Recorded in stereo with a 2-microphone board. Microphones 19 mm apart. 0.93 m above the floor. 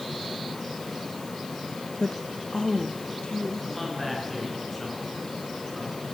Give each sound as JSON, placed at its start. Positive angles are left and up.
{"t": 2.0, "sound": "a woman speaking", "side_deg": 40, "distance_m": 0.8}
{"t": 3.6, "sound": "a man speaking", "side_deg": 10, "distance_m": 9.0}